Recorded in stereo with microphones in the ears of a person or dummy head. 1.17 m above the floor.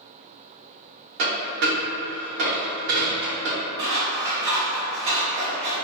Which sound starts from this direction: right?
A dropped coin, at 1.2 s.